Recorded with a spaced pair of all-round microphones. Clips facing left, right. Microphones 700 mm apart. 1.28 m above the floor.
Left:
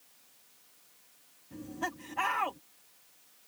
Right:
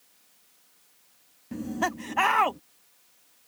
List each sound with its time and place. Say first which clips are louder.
1.5 s laughter: right 9 dB; 85° right